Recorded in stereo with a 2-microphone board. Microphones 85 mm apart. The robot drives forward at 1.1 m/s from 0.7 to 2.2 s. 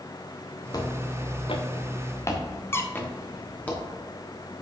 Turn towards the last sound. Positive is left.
turn(degrees=30)  # may be behind; listen again after turning